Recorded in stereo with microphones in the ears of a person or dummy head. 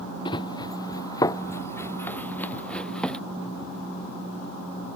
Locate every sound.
0.2 s running footsteps: 25° left (ahead or behind); by 3.2 s 5° left (ahead or behind)